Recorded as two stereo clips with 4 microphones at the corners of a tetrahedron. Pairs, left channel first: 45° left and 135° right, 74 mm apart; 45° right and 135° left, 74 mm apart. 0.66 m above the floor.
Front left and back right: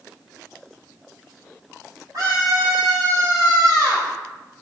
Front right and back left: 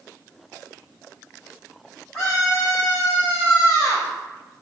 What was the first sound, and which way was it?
A scream, 130° right.